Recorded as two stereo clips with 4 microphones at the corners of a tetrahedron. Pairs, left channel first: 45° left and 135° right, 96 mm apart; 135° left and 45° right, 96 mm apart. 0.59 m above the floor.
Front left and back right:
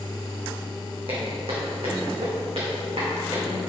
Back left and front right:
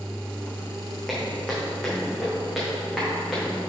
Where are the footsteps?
140° right, 2.5 m; by 3.5 s 135° right, 4 m.